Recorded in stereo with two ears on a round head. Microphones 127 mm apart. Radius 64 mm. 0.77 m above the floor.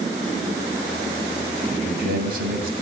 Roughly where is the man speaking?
Right.